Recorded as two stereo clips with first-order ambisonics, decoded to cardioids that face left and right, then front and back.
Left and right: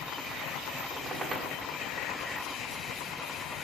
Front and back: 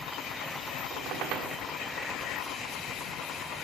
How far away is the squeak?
About 1.4 m.